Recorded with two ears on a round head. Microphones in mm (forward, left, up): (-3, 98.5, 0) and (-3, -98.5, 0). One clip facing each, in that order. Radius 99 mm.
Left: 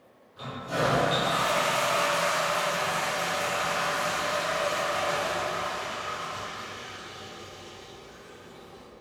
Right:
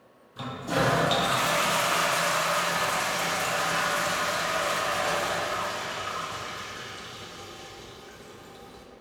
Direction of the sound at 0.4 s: 60° right (ahead or behind).